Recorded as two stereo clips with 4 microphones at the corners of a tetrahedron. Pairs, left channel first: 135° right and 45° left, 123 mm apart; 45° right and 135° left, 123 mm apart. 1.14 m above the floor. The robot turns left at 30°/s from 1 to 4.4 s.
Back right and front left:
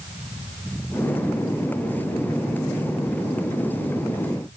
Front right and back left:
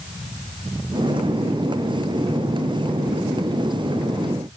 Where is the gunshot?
No gunshot in this recording.